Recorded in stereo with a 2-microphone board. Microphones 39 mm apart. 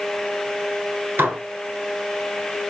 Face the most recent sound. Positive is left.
turn(degrees=-65)  # may be behind; listen again after turning